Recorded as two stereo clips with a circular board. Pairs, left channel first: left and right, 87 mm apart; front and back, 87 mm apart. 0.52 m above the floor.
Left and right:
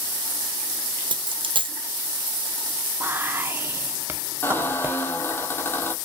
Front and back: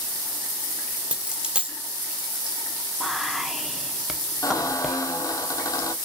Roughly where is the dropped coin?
Right.